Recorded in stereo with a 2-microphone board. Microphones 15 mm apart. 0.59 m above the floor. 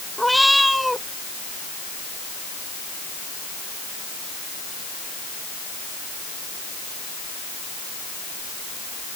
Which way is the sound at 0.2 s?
Centre (ahead or behind).